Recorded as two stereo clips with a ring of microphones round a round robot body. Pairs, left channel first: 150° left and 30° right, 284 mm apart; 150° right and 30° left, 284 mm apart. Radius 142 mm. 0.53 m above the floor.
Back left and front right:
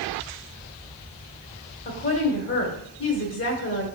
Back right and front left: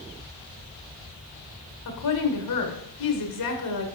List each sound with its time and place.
1.9 s a woman speaking: 165° right, 1.8 m